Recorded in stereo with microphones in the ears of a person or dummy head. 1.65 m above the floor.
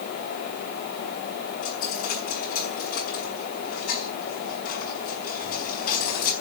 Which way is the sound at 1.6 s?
45° left (ahead or behind).